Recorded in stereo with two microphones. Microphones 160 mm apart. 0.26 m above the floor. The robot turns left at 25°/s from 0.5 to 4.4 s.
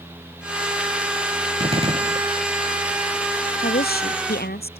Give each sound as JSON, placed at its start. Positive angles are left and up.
{"t": 1.6, "sound": "a gunshot", "side_deg": -35}
{"t": 3.6, "sound": "a woman speaking", "side_deg": 75}